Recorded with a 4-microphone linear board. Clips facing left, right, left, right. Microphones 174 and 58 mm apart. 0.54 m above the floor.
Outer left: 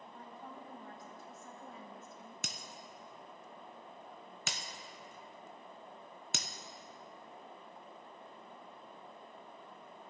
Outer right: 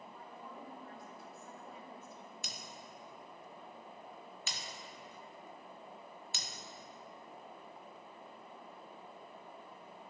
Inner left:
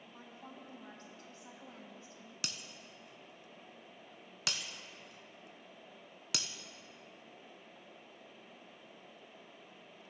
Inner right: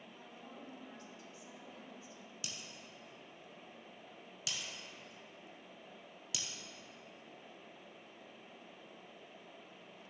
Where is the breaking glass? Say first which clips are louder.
Outer left 1 dB, inner left 4 dB; 65° left (ahead or behind), 0.8 m.